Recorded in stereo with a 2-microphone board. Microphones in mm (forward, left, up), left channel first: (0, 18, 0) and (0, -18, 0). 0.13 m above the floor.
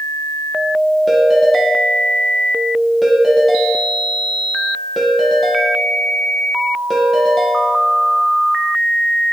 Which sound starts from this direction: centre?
A ringtone, at 1.1 s.